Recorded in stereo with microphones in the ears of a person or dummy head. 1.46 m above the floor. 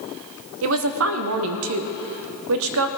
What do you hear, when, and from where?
0.6 s a woman speaking: 75° right (ahead or behind), 0.8 m